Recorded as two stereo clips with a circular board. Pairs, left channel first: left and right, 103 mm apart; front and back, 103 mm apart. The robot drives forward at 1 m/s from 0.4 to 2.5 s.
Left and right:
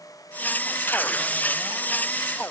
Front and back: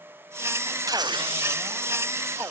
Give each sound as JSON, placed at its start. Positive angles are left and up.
{"t": 0.9, "sound": "tearing paper", "azimuth_deg": 150, "distance_m": 0.7}